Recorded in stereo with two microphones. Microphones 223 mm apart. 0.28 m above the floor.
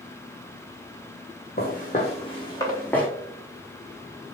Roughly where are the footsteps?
Left.